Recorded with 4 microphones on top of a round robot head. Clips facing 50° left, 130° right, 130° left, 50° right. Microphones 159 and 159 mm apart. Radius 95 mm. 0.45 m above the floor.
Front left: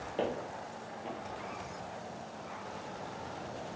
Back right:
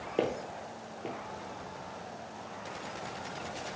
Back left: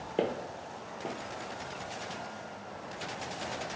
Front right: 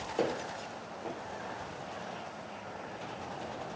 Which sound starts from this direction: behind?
Footsteps, at 0.2 s.